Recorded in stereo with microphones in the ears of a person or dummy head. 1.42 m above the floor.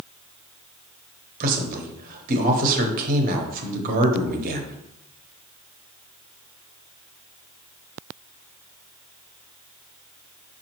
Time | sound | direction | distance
1.4 | a man speaking | 45° right (ahead or behind) | 1.0 m